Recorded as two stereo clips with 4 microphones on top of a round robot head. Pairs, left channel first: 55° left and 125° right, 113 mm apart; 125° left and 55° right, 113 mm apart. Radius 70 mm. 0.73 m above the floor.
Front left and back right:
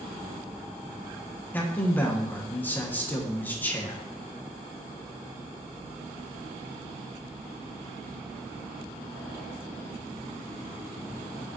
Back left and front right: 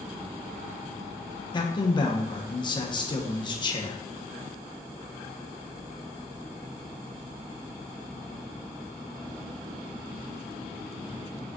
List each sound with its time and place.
1.5 s a man speaking: 120° left, 0.9 m